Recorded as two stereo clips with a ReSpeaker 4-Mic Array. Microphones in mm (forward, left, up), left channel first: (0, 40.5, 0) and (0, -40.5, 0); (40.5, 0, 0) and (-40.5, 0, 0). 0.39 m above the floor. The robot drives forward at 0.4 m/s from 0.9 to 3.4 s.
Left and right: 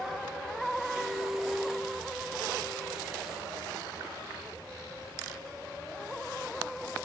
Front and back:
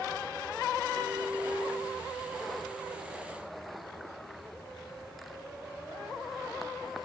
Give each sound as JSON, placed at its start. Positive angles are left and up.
{"t": 1.0, "sound": "a clink", "azimuth_deg": -170, "distance_m": 1.4}